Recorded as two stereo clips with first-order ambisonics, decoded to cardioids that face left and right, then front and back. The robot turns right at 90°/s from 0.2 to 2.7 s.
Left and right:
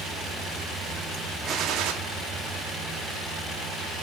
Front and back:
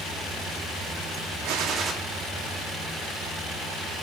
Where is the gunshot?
155° right, 2 m; by 1.9 s 110° right, 2 m.